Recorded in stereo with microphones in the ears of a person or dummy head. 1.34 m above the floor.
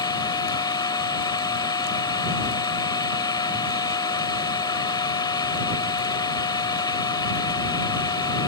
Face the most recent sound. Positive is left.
turn(degrees=25)  # may be behind; listen again after turning